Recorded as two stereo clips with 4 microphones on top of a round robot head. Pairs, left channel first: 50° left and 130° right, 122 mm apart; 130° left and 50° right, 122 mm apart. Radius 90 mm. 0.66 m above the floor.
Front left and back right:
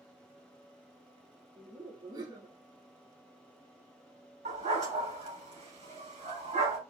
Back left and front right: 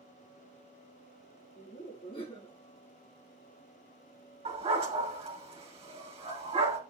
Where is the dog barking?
95° right, 3.5 m.